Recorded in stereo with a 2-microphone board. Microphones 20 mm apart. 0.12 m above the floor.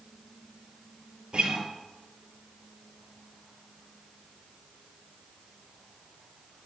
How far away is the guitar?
About 0.5 m.